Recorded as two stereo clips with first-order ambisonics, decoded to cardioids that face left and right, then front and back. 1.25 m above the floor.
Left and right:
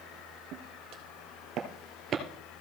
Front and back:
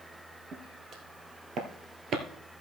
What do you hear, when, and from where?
0.5 s footsteps: 120° right, 2.5 m; by 2.2 s 145° right, 1.6 m